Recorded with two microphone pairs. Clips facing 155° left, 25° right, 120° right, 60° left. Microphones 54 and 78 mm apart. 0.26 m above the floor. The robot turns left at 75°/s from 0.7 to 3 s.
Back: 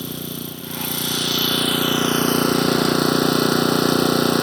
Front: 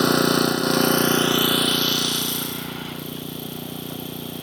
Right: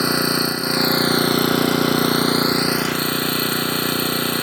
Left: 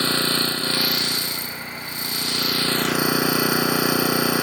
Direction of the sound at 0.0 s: 45° right.